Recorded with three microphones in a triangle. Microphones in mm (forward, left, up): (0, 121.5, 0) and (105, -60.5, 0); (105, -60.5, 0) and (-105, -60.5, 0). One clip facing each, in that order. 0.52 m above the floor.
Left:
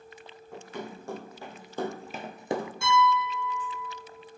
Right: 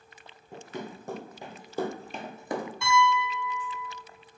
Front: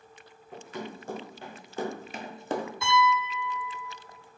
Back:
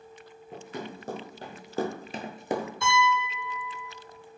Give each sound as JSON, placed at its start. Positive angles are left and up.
{"t": 0.5, "sound": "running footsteps", "azimuth_deg": -125, "distance_m": 1.9}
{"t": 2.8, "sound": "a piano", "azimuth_deg": 155, "distance_m": 1.7}